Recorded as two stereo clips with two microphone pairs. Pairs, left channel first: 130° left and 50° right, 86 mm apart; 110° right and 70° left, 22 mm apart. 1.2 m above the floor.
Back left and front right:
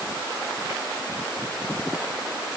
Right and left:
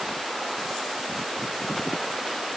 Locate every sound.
Only background noise.